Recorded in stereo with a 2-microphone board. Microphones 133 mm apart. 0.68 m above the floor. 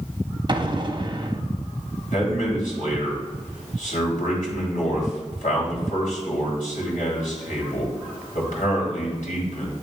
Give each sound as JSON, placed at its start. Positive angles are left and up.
{"t": 0.5, "sound": "an explosion", "side_deg": -35, "distance_m": 0.7}
{"t": 2.1, "sound": "a man speaking", "side_deg": 80, "distance_m": 3.0}